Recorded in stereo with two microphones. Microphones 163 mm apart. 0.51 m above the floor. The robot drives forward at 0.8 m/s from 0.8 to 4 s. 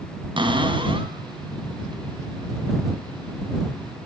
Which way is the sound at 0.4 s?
30° right (ahead or behind).